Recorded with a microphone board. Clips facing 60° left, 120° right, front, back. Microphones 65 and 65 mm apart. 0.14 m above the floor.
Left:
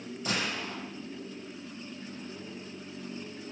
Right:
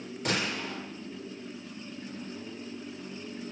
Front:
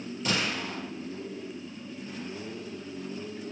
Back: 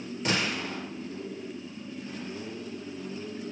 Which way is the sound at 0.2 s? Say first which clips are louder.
Right 2 dB, back 1 dB; 145° right.